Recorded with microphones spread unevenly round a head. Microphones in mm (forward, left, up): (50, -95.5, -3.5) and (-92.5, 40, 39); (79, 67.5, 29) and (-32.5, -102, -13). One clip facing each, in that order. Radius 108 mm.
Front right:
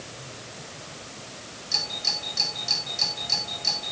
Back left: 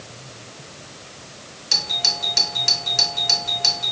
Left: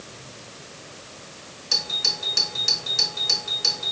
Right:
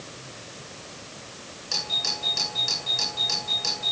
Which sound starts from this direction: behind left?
A doorbell, at 1.7 s.